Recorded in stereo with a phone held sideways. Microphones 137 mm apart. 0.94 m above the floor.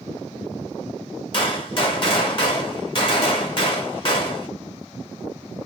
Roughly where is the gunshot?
Left.